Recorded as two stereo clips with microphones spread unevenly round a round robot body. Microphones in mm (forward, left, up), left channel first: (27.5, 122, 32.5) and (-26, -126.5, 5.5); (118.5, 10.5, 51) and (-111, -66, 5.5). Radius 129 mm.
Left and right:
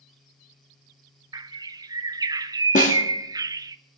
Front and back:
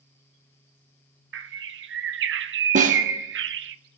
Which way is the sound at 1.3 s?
170° right.